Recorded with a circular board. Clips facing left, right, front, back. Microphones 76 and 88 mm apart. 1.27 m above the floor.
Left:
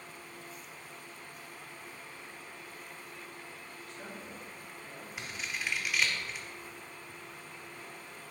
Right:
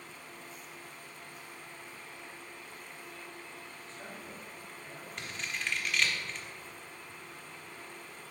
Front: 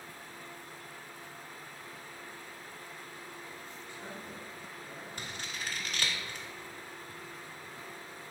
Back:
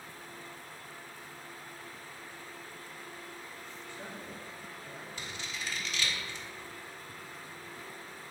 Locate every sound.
3.9 s a man speaking: 165° left, 3 m; by 5.1 s straight behind, 3.5 m
5.2 s scissors: 10° left, 1.1 m